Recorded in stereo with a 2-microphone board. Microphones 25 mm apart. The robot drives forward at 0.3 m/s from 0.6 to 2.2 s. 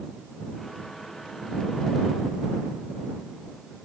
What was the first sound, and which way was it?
Only background noise.